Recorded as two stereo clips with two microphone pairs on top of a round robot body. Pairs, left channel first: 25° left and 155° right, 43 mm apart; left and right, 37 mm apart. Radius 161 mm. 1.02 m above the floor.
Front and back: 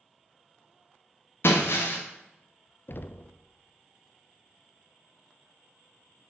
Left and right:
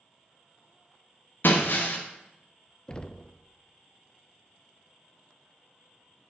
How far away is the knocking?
About 0.5 m.